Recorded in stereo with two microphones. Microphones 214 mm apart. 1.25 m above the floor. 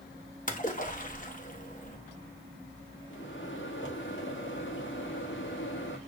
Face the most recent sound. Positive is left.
turn(degrees=75)  # may be behind; listen again after turning